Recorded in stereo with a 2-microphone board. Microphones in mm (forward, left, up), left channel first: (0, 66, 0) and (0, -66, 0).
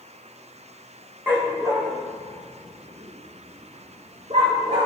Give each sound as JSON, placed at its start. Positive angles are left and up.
{"t": 1.3, "sound": "a dog barking", "side_deg": -15, "distance_m": 2.5}